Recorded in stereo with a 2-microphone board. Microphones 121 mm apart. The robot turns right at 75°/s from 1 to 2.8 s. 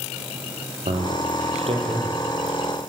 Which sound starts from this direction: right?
A man speaking, at 0.9 s.